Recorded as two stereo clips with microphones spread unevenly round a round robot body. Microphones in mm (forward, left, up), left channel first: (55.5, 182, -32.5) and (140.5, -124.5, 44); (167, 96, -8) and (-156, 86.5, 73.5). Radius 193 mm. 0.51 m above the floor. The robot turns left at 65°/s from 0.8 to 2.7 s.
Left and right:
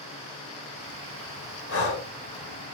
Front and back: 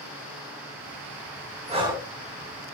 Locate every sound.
1.7 s breathing: 105° left, 0.8 m; by 2.1 s 80° left, 0.8 m